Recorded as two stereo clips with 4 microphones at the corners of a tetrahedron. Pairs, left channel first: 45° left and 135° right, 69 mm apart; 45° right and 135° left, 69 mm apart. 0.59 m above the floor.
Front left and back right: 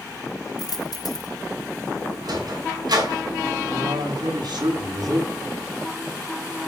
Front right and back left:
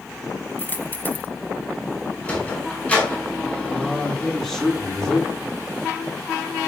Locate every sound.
0.6 s a dropped coin: 20° left, 1.2 m
2.2 s a sliding door: 115° right, 6 m
3.7 s a man speaking: 125° right, 6.5 m